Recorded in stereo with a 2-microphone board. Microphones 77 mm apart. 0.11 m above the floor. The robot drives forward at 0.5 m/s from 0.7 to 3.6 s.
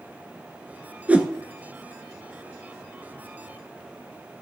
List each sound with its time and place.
1.1 s a whoosh: 20° right (ahead or behind), 1.0 m